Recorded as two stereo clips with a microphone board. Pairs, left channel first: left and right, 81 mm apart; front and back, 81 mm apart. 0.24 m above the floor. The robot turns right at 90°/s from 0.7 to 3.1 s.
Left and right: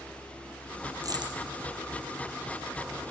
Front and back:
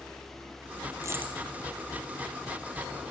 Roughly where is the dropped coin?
Behind right.